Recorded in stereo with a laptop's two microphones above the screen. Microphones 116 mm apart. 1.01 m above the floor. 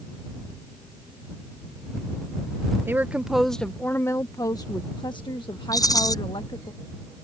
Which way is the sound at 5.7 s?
30° left (ahead or behind).